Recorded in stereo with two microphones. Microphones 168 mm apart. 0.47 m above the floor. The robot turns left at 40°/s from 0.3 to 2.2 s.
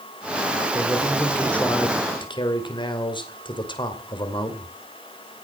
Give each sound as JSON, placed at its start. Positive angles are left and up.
{"t": 0.7, "sound": "a man speaking", "azimuth_deg": -160, "distance_m": 2.0}